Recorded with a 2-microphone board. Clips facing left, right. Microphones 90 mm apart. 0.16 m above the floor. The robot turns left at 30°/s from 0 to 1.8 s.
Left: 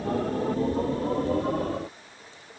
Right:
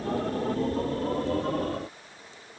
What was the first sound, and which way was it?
Only background noise.